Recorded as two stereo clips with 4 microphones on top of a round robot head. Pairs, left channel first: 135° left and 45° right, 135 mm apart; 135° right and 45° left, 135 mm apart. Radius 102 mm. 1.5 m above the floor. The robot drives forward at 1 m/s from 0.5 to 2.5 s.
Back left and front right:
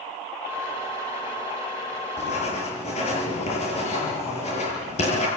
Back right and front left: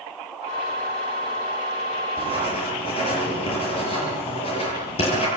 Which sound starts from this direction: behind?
Writing, at 2.2 s.